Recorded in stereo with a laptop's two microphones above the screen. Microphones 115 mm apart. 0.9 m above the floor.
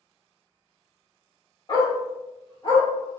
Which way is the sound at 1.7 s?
40° left (ahead or behind).